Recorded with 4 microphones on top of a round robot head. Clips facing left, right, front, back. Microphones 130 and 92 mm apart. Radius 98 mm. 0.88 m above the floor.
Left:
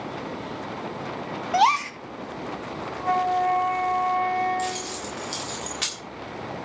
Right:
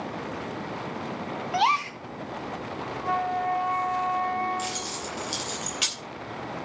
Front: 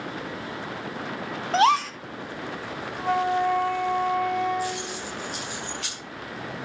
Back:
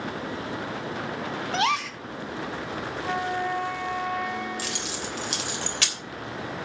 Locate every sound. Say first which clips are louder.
1.5 s a gasp: left 5 dB, front 7 dB; 50° left, 1.0 m
3.0 s a flute: left 5 dB, front 6 dB; 50° left, 2.5 m
4.6 s keys jangling: left 4 dB, front 3 dB; 170° right, 3 m